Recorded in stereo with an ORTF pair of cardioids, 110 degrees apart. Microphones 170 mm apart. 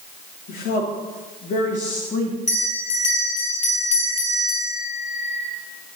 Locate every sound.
0.5 s a woman speaking: 65° left, 3 m; by 2.4 s 45° left, 2.5 m
2.5 s a bell: 45° left, 7.5 m